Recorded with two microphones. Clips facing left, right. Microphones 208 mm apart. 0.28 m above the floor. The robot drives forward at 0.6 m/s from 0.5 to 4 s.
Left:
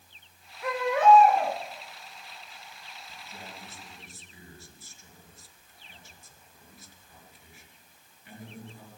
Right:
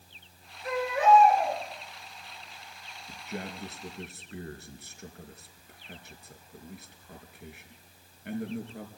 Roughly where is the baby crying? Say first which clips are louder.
Left 3 dB; left.